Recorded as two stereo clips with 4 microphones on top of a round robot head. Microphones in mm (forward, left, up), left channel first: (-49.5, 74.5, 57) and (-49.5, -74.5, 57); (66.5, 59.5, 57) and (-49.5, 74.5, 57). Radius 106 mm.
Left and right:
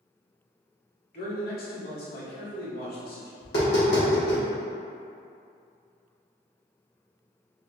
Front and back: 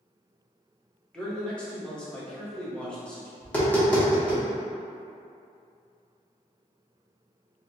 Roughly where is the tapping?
Left.